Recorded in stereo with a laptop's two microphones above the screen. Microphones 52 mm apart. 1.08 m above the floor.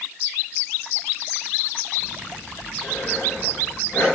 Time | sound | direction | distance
2.0 | breathing | 35° left (ahead or behind) | 3.5 m